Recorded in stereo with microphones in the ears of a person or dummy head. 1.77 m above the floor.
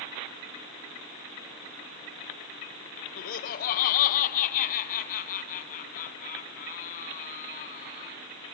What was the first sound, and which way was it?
Laughter, 50° left (ahead or behind).